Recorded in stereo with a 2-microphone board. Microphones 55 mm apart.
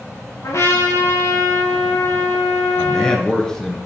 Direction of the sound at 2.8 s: 10° left (ahead or behind).